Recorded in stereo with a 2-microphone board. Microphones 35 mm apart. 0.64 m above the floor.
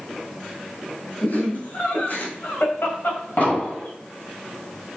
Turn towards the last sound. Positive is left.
turn(degrees=55)  # may be behind; listen again after turning